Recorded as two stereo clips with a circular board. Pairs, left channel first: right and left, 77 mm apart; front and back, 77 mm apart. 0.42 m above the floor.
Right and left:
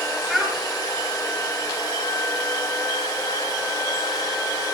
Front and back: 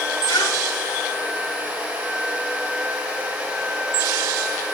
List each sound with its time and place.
0.3 s a child speaking: 5° left, 1.7 m